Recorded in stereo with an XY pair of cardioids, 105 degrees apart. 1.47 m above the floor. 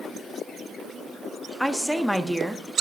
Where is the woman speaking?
Straight ahead, 0.8 m.